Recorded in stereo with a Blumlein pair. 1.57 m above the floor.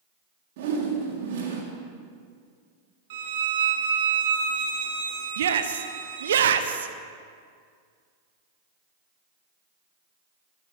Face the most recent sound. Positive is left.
turn(degrees=-65)